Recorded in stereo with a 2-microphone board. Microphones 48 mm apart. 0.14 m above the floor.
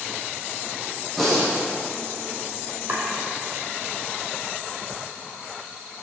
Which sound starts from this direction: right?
Chopping, at 2.9 s.